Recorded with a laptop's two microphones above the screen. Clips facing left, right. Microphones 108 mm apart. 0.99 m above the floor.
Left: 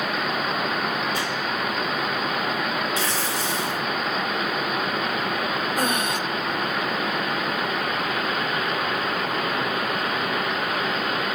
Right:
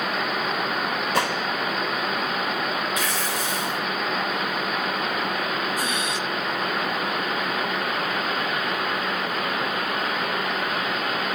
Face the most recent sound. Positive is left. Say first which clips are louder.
# left 3 dB
turn(degrees=50)  # may be behind; listen again after turning